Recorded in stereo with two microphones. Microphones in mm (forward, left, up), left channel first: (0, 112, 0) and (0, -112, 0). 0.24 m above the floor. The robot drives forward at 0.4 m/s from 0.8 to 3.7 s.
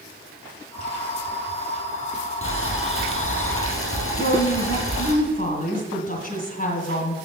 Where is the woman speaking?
40° left (ahead or behind), 1.9 m.